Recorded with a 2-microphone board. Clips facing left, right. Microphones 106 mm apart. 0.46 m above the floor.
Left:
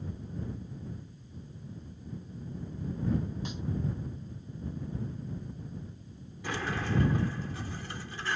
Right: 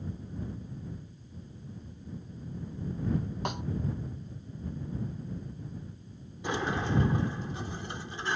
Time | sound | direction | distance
3.5 | a snare drum | 65° right (ahead or behind) | ?
6.4 | a sliding door | 20° right (ahead or behind) | ?